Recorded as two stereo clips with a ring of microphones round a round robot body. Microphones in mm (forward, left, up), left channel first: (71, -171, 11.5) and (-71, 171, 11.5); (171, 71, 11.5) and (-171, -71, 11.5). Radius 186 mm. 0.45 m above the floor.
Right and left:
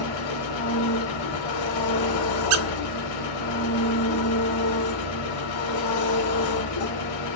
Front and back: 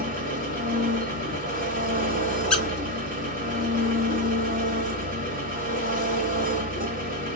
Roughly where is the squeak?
Left.